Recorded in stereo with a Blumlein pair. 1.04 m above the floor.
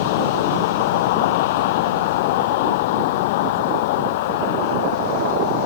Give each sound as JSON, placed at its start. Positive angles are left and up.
{"t": 0.0, "sound": "a vehicle", "azimuth_deg": 50}